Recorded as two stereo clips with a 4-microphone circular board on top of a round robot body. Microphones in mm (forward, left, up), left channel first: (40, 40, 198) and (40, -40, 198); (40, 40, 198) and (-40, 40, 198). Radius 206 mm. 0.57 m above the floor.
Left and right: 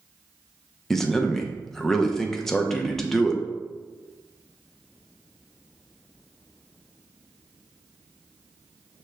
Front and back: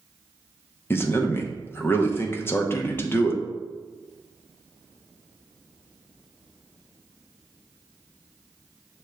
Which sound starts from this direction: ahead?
A man speaking, at 0.9 s.